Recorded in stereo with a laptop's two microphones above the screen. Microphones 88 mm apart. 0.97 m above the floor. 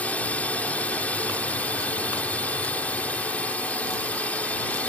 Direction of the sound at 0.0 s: 15° left (ahead or behind).